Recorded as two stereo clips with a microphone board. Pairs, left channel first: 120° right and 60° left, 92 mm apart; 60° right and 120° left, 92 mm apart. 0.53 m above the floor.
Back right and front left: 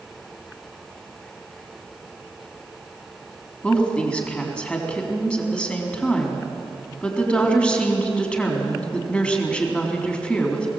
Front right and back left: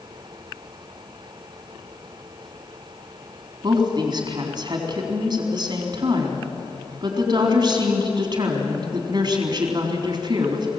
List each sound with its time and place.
3.6 s a woman speaking: 160° left, 3.5 m